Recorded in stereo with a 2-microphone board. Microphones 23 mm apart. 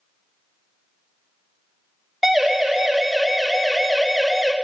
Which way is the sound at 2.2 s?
5° right (ahead or behind).